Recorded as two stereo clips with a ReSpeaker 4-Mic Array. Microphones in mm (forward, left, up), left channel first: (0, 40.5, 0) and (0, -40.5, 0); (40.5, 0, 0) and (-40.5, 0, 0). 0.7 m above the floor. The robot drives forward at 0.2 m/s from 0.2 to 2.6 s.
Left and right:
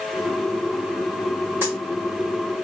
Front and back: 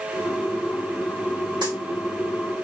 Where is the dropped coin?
150° right, 1.4 m; by 1.7 s 155° right, 1.4 m.